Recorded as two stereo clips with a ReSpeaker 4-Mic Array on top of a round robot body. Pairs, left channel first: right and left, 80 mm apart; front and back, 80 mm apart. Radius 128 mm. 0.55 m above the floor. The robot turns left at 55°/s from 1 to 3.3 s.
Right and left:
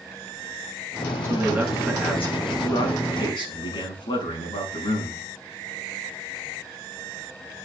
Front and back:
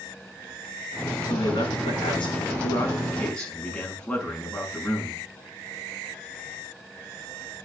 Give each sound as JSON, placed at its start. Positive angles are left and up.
{"t": 1.2, "sound": "a man speaking", "azimuth_deg": 35, "distance_m": 6.5}